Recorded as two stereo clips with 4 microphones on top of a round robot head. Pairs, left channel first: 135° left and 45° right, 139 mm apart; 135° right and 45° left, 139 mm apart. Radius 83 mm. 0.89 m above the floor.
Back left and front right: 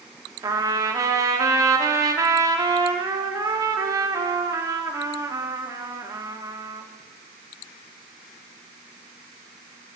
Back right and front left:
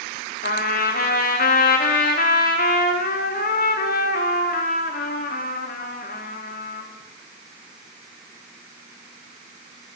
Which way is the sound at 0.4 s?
110° right.